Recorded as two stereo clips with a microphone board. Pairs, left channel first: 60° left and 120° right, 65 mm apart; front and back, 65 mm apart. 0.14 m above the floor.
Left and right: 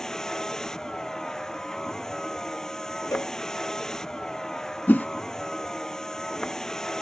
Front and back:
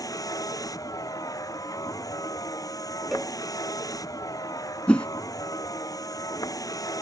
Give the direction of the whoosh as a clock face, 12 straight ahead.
10 o'clock.